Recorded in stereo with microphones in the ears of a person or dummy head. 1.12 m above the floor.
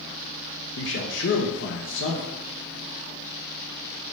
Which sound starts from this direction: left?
A man speaking, at 0.8 s.